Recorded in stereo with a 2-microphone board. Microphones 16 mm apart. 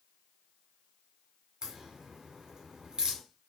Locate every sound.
1.6 s a crack: 50° right (ahead or behind), 1.2 m